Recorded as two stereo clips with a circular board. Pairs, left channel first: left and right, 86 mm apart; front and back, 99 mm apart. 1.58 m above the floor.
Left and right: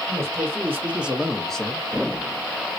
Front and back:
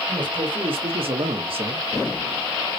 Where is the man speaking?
145° right, 1.2 m; by 1.8 s 160° left, 0.7 m.